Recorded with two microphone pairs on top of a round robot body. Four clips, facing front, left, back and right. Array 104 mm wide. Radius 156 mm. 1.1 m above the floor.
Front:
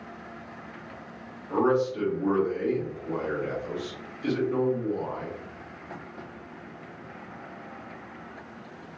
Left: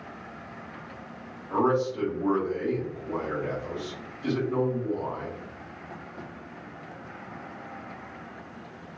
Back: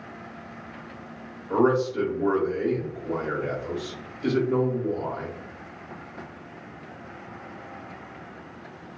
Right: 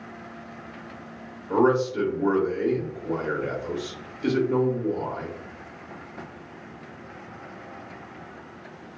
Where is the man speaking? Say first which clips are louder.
Right 4 dB, back 2 dB; 115° right, 1.1 m.